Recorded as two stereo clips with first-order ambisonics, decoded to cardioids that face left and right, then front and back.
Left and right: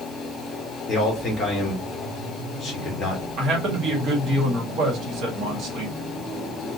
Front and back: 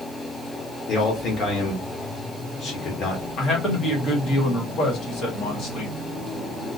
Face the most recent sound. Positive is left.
turn(degrees=-50)